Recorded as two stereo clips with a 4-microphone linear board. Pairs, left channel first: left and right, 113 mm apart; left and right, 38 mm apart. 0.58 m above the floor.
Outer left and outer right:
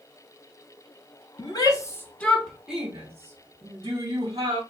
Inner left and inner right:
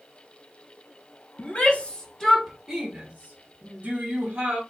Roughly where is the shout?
Left.